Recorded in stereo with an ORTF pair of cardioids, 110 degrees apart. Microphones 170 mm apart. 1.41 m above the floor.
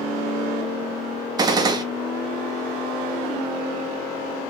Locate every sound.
1.4 s a gunshot: 25° right, 0.8 m